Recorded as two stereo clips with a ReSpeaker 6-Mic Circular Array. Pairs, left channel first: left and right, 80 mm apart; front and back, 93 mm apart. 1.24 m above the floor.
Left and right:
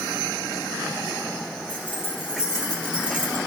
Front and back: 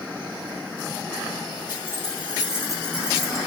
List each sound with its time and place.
1.7 s keys jangling: 160° left, 2.5 m; by 3.4 s 85° left, 1.6 m